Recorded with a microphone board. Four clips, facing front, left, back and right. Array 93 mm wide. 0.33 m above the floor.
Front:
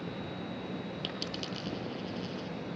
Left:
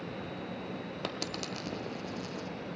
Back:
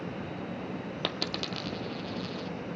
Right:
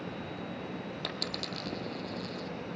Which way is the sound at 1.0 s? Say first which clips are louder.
Left 1 dB, back 4 dB; 160° left.